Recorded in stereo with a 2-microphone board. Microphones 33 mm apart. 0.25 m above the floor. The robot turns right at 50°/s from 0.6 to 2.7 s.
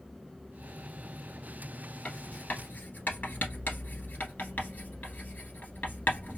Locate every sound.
2.0 s writing: 40° left (ahead or behind), 1.1 m; by 6.4 s 70° left (ahead or behind), 1.1 m